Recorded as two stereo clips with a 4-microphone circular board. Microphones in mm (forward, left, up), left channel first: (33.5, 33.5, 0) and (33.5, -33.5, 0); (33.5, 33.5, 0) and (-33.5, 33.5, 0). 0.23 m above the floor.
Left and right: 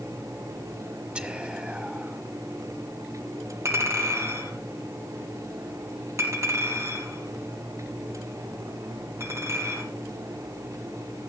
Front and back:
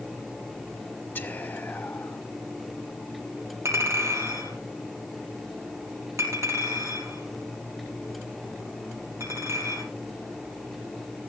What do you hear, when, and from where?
1.1 s whispering: 30° right, 1.4 m
3.6 s a clink: 135° right, 4 m